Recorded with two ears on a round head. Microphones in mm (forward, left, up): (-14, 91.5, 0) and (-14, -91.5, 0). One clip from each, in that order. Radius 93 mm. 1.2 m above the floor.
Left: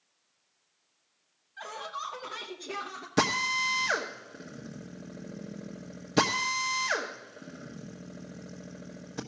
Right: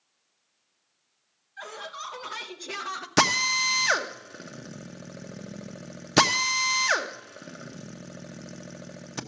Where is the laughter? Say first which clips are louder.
Even; centre (ahead or behind), 1.3 m; by 3.1 s 45° right (ahead or behind), 0.7 m.